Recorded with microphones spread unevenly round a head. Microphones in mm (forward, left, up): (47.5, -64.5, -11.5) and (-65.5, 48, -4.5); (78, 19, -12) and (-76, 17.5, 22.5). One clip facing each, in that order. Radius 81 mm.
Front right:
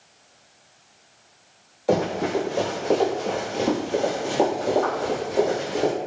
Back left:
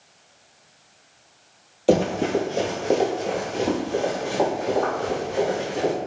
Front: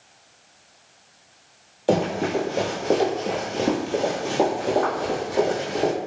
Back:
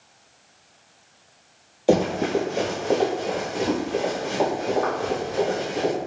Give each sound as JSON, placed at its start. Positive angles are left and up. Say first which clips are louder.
{"t": 1.9, "sound": "running footsteps", "louder": "back left 3 dB, back 2 dB", "azimuth_deg": 125, "distance_m": 1.2}